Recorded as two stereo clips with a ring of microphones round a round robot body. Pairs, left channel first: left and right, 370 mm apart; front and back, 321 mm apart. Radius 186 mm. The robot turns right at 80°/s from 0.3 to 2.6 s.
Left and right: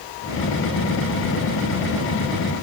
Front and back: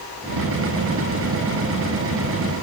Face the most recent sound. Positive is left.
No sound to turn to.